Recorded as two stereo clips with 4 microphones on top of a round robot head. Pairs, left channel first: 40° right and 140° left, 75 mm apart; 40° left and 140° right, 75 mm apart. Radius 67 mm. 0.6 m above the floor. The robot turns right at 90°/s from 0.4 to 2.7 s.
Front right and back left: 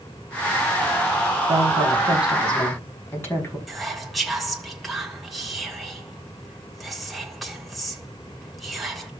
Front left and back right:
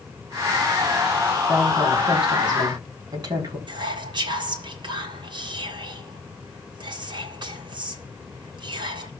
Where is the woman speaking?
150° left, 5.5 m; by 3.6 s 100° right, 5.5 m.